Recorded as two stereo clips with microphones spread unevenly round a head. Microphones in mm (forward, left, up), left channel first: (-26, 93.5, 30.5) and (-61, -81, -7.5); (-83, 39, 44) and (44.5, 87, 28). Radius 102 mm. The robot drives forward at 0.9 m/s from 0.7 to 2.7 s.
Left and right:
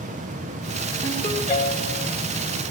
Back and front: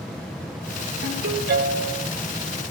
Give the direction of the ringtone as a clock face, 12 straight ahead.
11 o'clock.